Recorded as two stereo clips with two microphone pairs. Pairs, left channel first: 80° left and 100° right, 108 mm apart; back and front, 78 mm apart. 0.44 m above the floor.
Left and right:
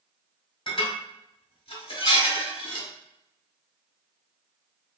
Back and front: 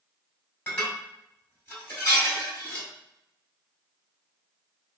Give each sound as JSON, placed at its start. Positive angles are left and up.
{"t": 0.7, "sound": "dishes clattering", "azimuth_deg": 120, "distance_m": 1.8}